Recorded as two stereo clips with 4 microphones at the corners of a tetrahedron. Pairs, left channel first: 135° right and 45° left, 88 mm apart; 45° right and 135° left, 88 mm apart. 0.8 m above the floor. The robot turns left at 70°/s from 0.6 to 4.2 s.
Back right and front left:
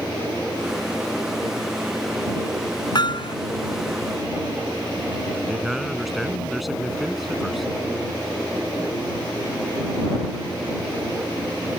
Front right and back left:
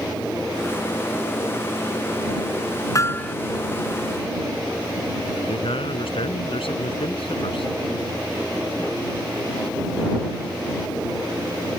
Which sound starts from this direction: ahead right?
A man speaking, at 5.3 s.